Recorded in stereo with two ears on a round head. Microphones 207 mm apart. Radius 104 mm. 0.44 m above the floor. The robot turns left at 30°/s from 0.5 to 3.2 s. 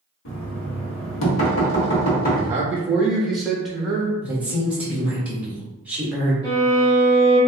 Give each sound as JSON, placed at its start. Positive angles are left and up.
{"t": 0.2, "sound": "knocking", "azimuth_deg": 105, "distance_m": 1.0}
{"t": 2.3, "sound": "a man speaking", "side_deg": -15, "distance_m": 0.9}
{"t": 4.2, "sound": "a woman speaking", "side_deg": -5, "distance_m": 1.3}
{"t": 6.4, "sound": "a violin", "side_deg": 15, "distance_m": 1.3}